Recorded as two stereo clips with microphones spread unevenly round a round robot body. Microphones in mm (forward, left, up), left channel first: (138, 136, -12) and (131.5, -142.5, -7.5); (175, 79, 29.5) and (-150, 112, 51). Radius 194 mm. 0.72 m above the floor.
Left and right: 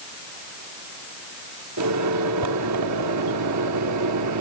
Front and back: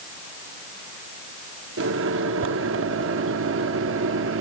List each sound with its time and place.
1.8 s a microwave: 130° right, 1.5 m